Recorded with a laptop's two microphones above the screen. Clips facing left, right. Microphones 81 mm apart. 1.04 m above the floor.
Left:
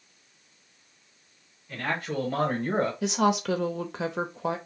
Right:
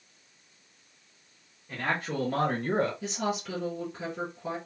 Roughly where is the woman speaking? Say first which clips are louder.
Left 7 dB; left.